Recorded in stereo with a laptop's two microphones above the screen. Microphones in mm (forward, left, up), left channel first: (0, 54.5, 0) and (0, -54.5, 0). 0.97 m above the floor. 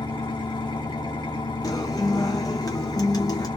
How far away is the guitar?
About 1.0 m.